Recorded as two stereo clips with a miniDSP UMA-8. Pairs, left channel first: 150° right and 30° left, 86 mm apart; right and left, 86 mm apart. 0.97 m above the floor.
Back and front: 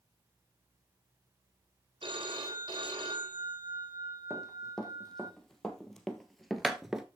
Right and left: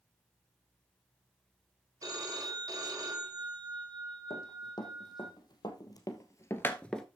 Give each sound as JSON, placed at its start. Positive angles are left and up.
{"t": 2.0, "sound": "a phone ringing", "azimuth_deg": 45, "distance_m": 3.5}
{"t": 4.3, "sound": "running footsteps", "azimuth_deg": -65, "distance_m": 3.0}